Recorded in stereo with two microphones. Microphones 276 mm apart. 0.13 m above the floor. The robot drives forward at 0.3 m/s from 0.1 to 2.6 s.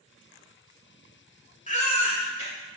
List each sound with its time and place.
1.7 s a baby crying: 25° left (ahead or behind), 0.6 m